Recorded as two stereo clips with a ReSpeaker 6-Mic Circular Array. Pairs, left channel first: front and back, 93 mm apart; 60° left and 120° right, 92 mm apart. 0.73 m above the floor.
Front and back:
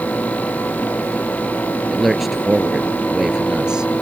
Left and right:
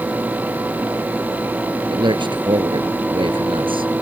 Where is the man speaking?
90° right; by 3.9 s 100° right.